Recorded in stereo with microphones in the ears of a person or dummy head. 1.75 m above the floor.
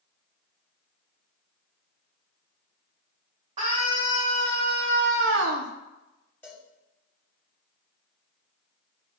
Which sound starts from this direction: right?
A scream, at 3.6 s.